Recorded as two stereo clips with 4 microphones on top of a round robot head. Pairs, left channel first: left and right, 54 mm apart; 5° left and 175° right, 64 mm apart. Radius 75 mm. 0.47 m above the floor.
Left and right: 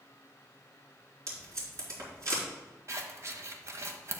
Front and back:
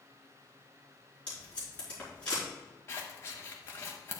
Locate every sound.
1.3 s tape being pulled: 70° right, 3.5 m
2.9 s scissors: 55° right, 0.9 m